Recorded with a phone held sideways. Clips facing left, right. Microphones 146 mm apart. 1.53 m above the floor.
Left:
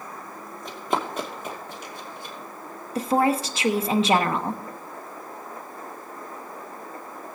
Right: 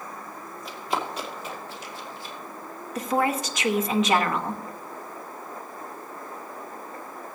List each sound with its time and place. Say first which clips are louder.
0.7 s running footsteps: left 3 dB; 45° left (ahead or behind), 2 m; by 2.4 s 60° left (ahead or behind), 3.5 m
3.0 s a woman speaking: left 3 dB; 30° left (ahead or behind), 0.9 m